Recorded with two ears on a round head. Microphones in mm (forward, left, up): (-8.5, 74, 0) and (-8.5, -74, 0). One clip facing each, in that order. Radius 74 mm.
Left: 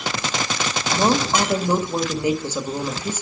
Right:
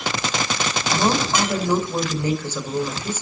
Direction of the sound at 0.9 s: 15° left (ahead or behind).